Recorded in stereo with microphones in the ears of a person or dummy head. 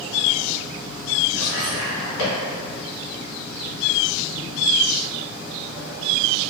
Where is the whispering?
60° left (ahead or behind), 1.6 m.